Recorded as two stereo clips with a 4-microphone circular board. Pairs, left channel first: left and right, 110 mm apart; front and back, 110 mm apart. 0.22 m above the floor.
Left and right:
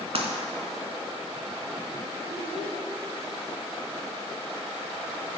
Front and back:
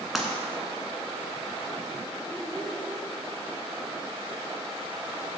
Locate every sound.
0.1 s breaking glass: 90° right, 1.6 m
2.3 s a child speaking: 85° right, 1.6 m